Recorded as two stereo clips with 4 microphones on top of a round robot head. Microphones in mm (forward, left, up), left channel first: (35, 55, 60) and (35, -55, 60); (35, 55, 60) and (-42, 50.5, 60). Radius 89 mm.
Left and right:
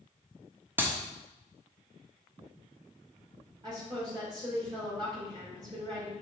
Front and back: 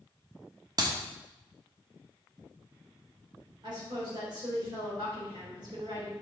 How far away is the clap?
About 1.2 m.